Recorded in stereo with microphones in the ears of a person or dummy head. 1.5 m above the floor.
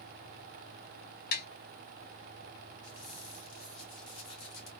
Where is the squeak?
40° left (ahead or behind), 1.5 m.